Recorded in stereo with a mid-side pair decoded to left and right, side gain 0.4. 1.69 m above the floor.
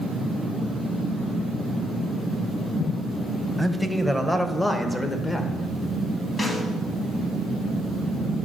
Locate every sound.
3.6 s a man speaking: 5° right, 1.3 m; by 5.5 s 30° left, 2 m
6.4 s a snare drum: 30° left, 3 m